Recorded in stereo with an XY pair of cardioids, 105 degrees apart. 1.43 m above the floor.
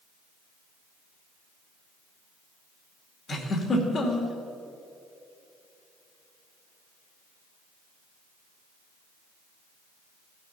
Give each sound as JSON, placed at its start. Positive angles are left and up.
{"t": 3.3, "sound": "a giggle", "azimuth_deg": 40, "distance_m": 2.5}